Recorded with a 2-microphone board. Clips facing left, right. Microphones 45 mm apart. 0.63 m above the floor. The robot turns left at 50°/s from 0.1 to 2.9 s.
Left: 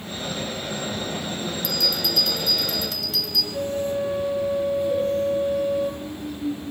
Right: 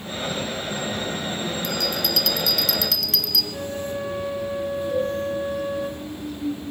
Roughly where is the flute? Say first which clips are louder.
Left 4 dB; right.